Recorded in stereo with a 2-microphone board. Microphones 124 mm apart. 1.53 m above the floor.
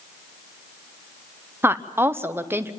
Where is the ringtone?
I don't hear a ringtone.